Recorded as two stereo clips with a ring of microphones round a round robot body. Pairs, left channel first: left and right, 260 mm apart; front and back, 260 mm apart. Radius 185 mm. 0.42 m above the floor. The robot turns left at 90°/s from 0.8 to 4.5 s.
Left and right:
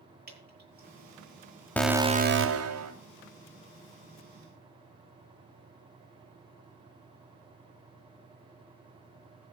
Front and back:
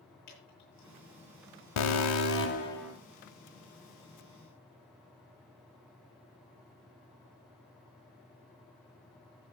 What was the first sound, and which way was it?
Dripping, 40° right.